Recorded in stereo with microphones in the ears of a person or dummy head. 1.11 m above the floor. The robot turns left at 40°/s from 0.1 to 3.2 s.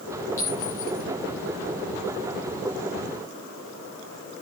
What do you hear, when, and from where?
0.4 s a clink: 15° left (ahead or behind), 9 m; by 1.0 s 40° left (ahead or behind), 9 m